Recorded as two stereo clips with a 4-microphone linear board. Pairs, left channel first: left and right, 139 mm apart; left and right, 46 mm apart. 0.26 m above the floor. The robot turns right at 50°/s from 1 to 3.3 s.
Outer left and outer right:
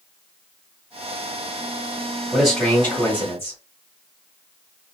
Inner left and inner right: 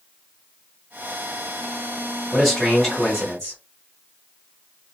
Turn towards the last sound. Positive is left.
turn(degrees=15)  # may be behind; listen again after turning